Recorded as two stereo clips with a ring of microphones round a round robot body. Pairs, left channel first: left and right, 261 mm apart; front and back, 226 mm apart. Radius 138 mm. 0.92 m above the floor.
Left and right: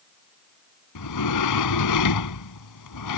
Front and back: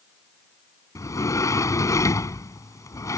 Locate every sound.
0.9 s a sliding door: 75° left